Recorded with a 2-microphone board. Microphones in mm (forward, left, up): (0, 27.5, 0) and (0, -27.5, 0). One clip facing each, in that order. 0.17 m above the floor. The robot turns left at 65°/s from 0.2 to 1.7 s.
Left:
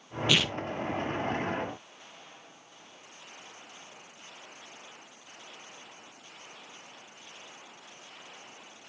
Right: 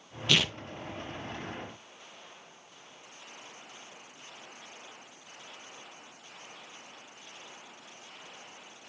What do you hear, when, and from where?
0.3 s tearing paper: 5° left (ahead or behind), 0.7 m; by 0.6 s 10° right (ahead or behind), 0.7 m